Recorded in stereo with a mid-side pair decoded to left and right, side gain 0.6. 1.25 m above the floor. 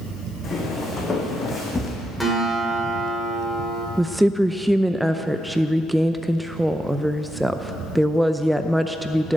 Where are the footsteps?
25° left, 5 m; by 1.9 s 15° left, 4.5 m.